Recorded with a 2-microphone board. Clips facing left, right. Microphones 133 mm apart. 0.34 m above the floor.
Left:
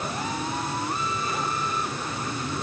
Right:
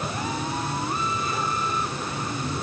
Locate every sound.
Only background noise.